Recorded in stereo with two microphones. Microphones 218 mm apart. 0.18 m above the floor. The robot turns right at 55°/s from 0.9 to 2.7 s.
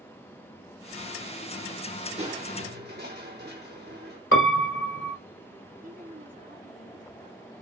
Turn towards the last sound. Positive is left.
turn(degrees=-40)  # may be behind; listen again after turning